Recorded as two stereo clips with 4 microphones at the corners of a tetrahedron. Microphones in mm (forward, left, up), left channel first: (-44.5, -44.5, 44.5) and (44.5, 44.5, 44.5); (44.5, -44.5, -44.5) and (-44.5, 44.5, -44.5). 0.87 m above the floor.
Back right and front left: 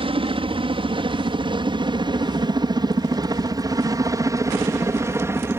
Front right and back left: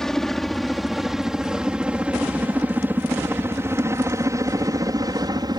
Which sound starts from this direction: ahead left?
A helicopter, at 0.0 s.